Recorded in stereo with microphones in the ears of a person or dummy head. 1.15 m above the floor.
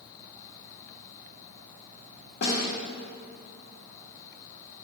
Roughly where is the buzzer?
I don't hear a buzzer.